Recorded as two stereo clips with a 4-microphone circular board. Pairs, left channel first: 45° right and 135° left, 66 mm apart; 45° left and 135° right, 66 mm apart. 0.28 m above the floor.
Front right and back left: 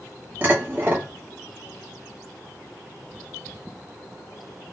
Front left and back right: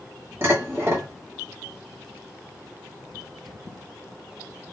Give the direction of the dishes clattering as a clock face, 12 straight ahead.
6 o'clock.